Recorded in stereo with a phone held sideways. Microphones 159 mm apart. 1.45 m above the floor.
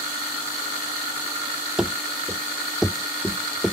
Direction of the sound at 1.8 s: 5° right (ahead or behind).